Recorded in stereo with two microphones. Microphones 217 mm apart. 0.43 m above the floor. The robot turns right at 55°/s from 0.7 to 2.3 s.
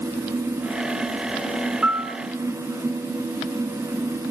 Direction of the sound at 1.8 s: 5° right (ahead or behind).